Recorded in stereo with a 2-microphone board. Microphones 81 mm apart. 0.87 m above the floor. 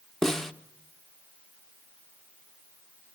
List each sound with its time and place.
0.2 s a snare drum: 5° left (ahead or behind), 1.0 m